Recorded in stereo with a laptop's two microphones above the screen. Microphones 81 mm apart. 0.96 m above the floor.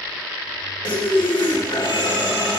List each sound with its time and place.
0.8 s breathing: 80° left, 1.2 m